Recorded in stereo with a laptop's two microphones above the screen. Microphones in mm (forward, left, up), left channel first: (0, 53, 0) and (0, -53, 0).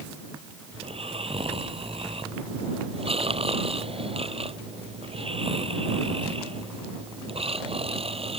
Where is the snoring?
65° right (ahead or behind).